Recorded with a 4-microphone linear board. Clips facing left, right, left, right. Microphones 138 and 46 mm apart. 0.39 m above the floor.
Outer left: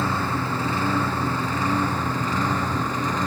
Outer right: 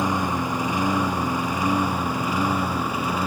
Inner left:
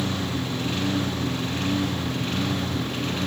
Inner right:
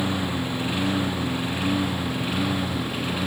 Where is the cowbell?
No cowbell in this recording.